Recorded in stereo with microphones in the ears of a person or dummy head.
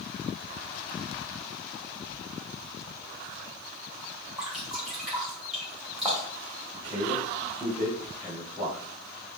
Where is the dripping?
Centre (ahead or behind), 1.9 m.